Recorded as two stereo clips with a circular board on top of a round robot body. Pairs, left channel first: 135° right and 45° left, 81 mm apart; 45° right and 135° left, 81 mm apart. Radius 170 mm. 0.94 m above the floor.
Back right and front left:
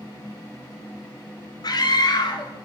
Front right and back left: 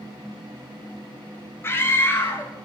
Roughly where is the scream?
Right.